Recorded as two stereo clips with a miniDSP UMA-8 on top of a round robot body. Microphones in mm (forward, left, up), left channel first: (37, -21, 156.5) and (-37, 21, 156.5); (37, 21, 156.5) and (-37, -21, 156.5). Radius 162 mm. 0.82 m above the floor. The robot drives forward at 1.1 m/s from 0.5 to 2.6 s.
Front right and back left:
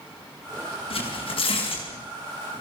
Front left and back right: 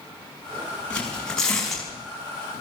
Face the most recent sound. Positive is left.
turn(degrees=-65)